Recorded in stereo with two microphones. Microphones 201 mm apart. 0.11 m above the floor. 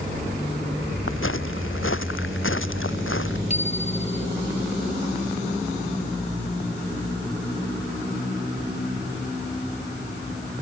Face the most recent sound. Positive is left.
turn(degrees=35)  # may be behind; listen again after turning